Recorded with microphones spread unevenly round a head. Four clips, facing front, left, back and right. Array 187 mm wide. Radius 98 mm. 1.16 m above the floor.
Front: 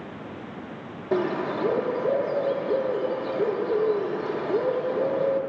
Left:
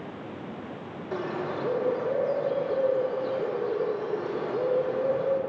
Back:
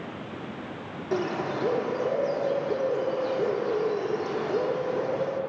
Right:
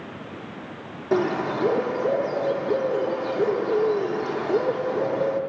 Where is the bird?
80° right, 1.1 m.